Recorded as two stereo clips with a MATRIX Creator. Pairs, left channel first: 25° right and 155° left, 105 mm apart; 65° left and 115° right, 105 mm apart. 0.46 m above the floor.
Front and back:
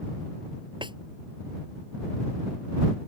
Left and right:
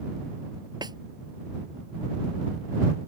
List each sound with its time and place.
0.8 s a snare drum: 160° right